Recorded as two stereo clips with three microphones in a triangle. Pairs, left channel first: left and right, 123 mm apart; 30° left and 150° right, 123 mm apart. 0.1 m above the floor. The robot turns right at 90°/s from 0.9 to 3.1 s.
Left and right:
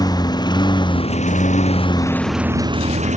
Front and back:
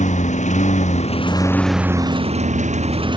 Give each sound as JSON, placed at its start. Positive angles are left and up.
{"t": 0.0, "sound": "a lawn mower", "azimuth_deg": 35}